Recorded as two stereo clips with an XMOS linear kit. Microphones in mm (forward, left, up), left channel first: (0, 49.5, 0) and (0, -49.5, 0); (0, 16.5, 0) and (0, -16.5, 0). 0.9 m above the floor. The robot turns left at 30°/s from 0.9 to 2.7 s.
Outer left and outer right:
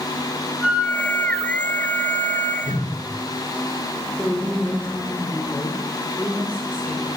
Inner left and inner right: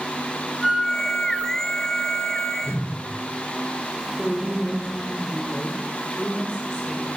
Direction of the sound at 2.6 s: 80° left.